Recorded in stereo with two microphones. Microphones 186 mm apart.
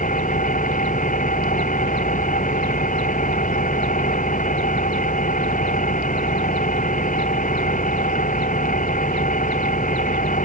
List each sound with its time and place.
0.0 s an engine running: 45° left (ahead or behind)